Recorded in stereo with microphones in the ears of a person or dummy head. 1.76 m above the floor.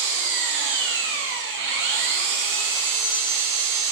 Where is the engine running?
60° right (ahead or behind), 0.8 m.